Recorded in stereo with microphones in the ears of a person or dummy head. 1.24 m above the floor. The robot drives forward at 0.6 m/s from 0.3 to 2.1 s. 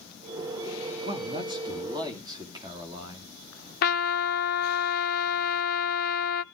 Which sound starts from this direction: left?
A trumpet, at 3.8 s.